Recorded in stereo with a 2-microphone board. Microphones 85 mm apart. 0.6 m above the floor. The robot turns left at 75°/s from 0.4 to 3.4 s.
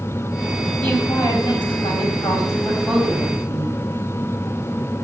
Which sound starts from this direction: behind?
A woman speaking, at 0.8 s.